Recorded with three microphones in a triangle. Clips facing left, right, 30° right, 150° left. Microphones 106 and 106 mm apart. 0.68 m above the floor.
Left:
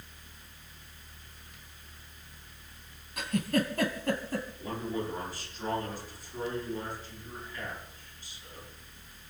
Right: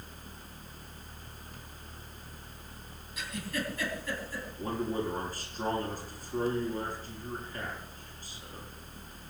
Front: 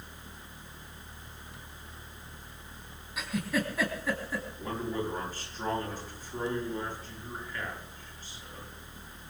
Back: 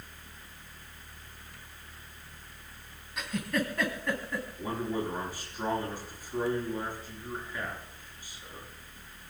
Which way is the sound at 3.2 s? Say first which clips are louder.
Left 8 dB, even; 55° left.